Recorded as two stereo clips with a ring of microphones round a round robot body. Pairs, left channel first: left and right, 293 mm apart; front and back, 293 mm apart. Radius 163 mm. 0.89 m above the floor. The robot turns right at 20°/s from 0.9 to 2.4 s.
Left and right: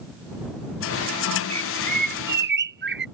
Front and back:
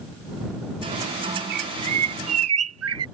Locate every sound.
1.5 s a bird: 160° right; by 3.1 s 145° right